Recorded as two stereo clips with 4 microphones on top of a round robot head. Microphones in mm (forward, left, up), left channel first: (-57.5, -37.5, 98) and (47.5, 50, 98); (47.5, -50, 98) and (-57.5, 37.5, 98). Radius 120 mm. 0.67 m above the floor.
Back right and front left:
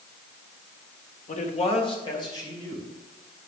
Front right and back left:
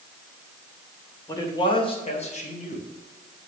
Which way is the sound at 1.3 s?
110° right.